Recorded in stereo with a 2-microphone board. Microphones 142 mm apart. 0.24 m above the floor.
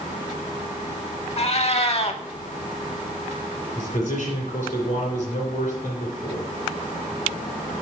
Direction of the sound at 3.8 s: 60° left (ahead or behind).